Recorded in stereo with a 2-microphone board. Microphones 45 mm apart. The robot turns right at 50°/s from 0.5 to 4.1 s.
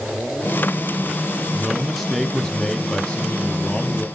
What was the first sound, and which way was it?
A man speaking, 10° right (ahead or behind).